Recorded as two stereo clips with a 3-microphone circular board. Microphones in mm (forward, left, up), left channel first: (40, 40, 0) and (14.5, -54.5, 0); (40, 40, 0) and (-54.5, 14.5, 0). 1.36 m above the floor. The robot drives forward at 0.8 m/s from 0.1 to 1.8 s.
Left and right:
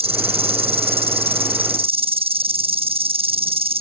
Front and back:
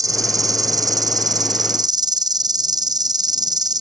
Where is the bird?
I don't hear a bird.